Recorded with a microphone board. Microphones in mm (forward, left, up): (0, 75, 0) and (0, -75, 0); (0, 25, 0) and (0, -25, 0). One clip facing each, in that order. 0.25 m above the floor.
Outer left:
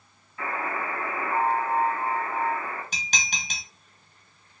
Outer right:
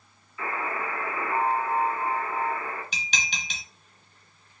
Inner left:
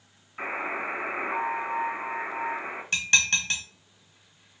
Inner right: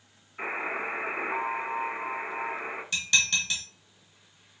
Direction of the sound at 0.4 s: 45° left (ahead or behind).